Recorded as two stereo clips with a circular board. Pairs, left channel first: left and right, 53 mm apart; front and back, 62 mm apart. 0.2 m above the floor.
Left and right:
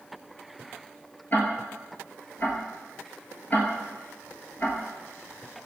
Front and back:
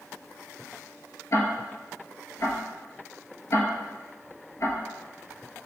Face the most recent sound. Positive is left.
turn(degrees=35)